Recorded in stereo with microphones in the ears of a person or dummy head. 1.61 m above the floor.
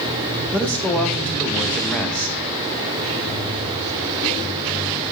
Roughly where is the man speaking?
Centre.